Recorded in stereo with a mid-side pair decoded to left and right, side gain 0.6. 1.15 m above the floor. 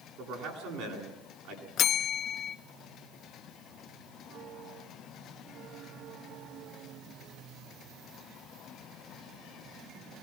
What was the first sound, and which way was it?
A man speaking, 70° right.